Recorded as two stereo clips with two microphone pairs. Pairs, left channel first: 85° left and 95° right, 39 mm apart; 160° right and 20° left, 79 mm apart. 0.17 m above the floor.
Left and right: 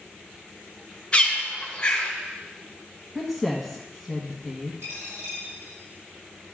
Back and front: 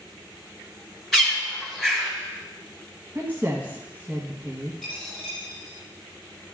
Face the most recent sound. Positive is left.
turn(degrees=-75)